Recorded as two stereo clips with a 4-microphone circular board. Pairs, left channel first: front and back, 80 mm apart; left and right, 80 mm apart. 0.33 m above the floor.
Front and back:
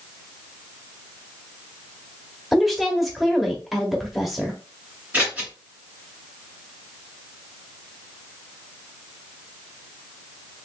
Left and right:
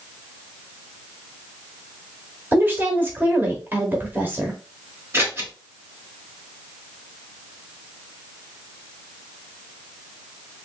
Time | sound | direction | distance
2.5 | a woman speaking | 95° right | 1.1 m
5.1 | scissors | 125° right | 1.7 m